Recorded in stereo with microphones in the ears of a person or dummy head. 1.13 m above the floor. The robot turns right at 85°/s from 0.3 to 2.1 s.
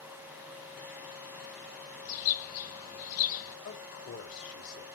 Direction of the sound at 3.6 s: 70° left (ahead or behind).